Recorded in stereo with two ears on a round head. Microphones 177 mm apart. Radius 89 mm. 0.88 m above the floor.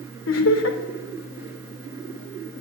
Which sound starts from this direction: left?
Laughter, at 0.3 s.